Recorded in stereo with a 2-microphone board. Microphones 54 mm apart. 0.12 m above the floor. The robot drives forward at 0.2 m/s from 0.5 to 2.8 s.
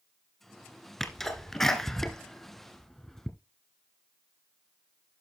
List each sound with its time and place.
1.0 s a sneeze: 5° left (ahead or behind), 1.3 m; by 3.3 s 10° left (ahead or behind), 1.1 m